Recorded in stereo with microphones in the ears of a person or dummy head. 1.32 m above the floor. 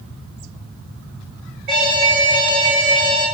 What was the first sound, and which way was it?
An alarm, 50° right (ahead or behind).